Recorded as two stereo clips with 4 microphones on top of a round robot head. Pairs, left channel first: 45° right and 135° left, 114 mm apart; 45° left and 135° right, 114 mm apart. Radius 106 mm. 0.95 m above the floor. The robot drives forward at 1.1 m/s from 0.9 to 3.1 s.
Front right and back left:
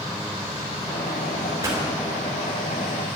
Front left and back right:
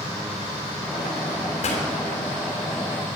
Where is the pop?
70° left, 3.5 m.